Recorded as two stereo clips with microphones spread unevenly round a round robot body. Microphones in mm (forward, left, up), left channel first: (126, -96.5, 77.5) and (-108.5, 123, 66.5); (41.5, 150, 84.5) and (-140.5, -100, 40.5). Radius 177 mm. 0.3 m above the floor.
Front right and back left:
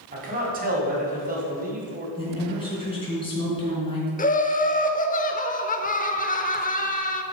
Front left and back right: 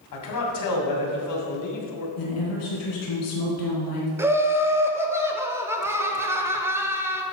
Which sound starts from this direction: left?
A man speaking, at 0.1 s.